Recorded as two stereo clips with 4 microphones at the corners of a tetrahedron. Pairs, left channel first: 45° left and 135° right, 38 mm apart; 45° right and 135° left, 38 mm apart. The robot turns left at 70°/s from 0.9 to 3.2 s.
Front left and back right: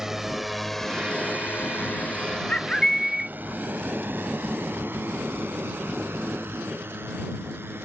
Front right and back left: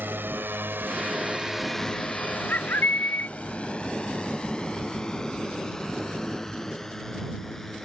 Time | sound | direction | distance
0.0 | a drone | 145° left | ?
2.5 | a bird | 10° right | ?